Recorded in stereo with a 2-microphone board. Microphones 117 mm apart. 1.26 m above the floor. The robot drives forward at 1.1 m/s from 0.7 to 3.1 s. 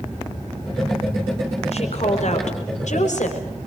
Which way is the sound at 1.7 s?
60° left (ahead or behind).